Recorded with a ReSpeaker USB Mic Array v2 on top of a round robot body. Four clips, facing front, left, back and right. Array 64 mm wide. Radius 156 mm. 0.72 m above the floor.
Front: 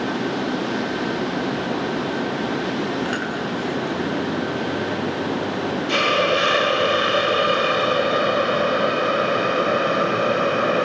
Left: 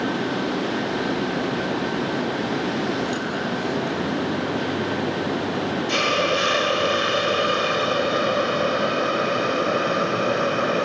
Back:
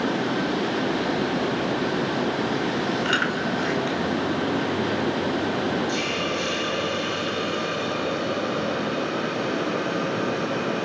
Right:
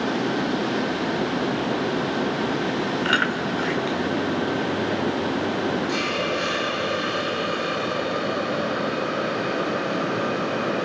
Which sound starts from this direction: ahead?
A hiss, at 5.9 s.